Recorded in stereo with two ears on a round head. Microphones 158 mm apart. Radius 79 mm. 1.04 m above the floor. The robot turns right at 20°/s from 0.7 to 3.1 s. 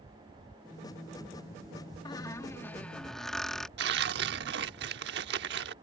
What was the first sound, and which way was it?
A squeak, 25° left (ahead or behind).